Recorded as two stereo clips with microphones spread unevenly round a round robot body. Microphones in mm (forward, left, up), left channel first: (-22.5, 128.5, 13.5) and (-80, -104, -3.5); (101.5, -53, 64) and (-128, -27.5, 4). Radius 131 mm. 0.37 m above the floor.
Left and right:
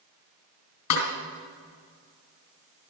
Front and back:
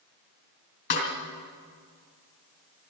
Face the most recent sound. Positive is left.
turn(degrees=45)